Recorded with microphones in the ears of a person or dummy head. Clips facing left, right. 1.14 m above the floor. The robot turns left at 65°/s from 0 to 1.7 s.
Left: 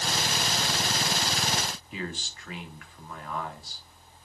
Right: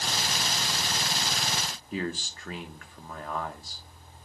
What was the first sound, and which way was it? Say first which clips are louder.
A man speaking: right 10 dB; 40° right (ahead or behind).